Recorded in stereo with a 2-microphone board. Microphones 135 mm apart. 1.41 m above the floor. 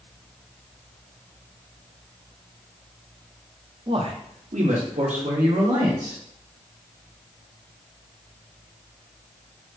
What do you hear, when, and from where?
3.9 s a man speaking: 40° right (ahead or behind), 0.7 m; by 6.2 s 80° right, 2 m